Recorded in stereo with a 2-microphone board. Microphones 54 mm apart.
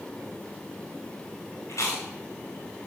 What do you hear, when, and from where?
1.7 s chewing: 75° left (ahead or behind), 5 m